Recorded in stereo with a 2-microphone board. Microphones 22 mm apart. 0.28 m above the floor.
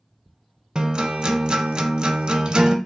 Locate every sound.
0.8 s a guitar: 40° right (ahead or behind), 0.5 m